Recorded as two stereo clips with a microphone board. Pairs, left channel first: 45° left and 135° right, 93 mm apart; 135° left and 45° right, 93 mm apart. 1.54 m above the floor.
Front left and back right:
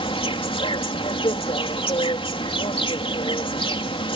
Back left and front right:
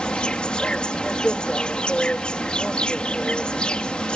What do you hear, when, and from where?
0.0 s an insect: 55° left